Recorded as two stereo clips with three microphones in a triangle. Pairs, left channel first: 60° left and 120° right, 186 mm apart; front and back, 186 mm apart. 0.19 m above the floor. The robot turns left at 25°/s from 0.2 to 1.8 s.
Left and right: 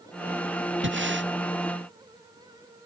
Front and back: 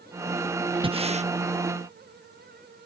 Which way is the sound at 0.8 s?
120° right.